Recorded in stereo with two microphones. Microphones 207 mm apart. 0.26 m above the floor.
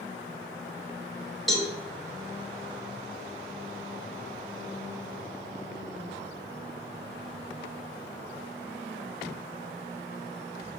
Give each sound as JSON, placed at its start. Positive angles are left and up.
{"t": 1.5, "sound": "a cowbell", "side_deg": 0, "distance_m": 0.9}